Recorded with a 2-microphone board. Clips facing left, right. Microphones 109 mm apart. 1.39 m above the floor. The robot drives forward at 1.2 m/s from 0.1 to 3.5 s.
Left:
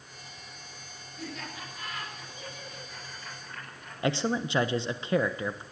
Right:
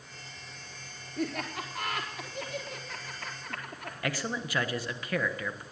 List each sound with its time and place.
1.2 s laughter: 60° right (ahead or behind), 4 m; by 3.9 s 80° right, 3.5 m
4.0 s a man speaking: 25° left (ahead or behind), 0.8 m